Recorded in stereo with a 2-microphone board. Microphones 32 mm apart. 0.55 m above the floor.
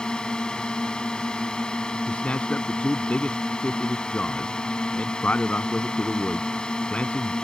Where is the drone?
25° left (ahead or behind).